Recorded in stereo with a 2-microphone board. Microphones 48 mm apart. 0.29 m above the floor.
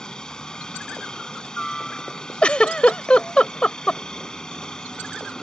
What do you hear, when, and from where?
0.0 s a helicopter: 15° left (ahead or behind)
2.4 s a giggle: 25° left (ahead or behind)